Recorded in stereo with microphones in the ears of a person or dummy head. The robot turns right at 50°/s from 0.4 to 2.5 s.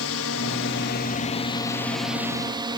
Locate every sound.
0.0 s a drone: 95° left; by 2.8 s 160° right